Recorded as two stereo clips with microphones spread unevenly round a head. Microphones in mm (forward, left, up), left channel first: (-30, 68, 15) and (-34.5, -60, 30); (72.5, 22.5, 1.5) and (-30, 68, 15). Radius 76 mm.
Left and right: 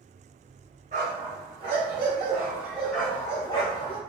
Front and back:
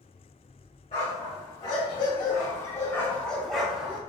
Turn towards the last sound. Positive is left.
turn(degrees=95)